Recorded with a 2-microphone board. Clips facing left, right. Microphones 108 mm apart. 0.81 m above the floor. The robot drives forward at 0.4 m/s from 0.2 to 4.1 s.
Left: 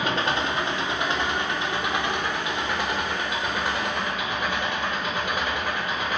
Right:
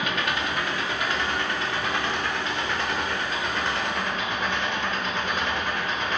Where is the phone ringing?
No phone ringing in this recording.